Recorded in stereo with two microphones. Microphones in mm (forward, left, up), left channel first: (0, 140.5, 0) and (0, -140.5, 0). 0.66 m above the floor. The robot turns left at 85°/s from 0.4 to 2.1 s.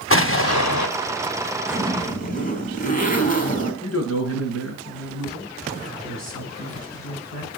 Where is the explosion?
130° left, 0.7 m; by 0.9 s 90° left, 0.7 m.